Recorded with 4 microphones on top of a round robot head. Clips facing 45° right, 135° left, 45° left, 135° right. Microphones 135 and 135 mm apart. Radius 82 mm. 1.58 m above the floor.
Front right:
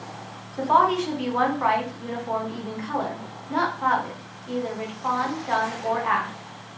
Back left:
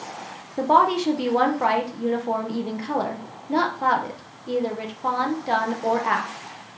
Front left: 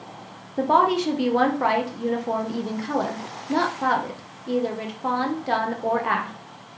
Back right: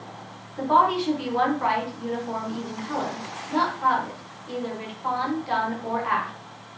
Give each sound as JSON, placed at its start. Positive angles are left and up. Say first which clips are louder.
{"t": 0.6, "sound": "a woman speaking", "louder": "back left 2 dB, front left 1 dB", "azimuth_deg": 85, "distance_m": 1.6}